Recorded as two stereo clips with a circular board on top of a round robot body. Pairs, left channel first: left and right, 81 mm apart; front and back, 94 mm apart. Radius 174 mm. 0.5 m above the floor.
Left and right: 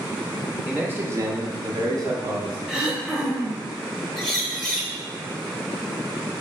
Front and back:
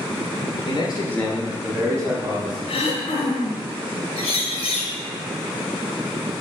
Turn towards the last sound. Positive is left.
turn(degrees=5)